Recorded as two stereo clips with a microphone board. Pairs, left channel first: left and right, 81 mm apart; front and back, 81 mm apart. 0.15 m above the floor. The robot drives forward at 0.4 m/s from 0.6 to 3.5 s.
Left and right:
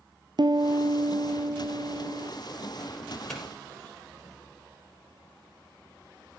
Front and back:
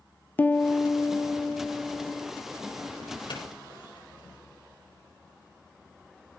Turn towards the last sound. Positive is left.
turn(degrees=5)